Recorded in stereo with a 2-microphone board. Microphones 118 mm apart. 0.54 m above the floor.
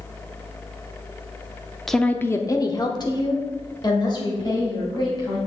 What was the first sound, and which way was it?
A woman speaking, centre (ahead or behind).